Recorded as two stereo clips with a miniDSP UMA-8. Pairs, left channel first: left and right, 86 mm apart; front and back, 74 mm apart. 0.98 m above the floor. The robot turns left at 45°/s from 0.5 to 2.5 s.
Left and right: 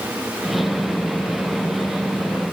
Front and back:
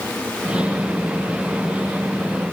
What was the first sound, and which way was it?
Only background noise.